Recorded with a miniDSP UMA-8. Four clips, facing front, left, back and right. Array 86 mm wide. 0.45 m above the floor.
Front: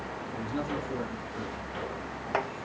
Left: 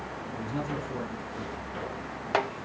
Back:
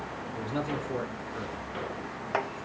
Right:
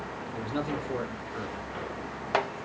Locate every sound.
0.3 s a man speaking: 120° right, 1.1 m